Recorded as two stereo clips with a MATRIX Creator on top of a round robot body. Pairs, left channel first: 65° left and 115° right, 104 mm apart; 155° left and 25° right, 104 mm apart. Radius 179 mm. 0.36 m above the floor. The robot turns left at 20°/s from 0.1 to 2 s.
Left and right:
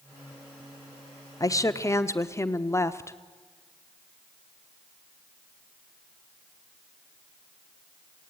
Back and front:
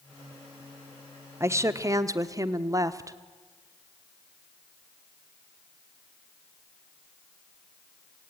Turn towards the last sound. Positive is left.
turn(degrees=15)